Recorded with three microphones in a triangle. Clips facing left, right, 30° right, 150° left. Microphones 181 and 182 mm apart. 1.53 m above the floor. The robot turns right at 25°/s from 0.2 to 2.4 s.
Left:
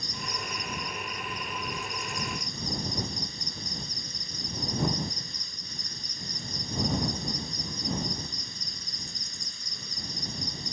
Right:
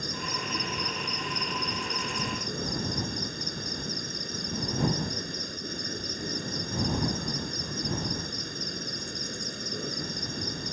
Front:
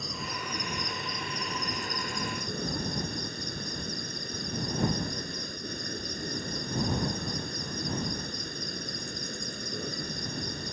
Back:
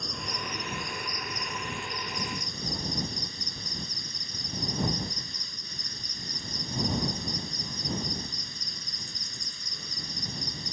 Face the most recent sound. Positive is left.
turn(degrees=-65)